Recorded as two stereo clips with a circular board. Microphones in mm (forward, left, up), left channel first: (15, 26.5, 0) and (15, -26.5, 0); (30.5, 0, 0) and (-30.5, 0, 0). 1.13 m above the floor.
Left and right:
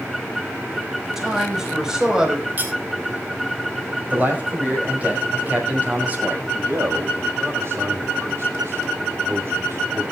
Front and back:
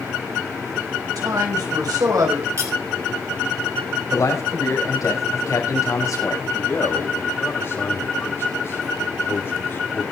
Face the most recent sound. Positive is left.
turn(degrees=-50)